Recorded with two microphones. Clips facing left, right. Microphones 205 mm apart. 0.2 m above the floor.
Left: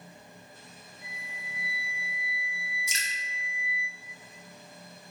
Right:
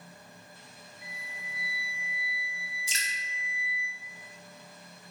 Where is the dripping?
30° right (ahead or behind), 0.5 m.